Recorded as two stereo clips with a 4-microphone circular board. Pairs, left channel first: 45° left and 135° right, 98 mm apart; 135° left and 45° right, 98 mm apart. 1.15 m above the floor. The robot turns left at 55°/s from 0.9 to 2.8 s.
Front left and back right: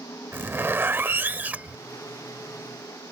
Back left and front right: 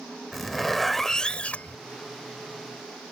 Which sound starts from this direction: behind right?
A zipper, at 0.3 s.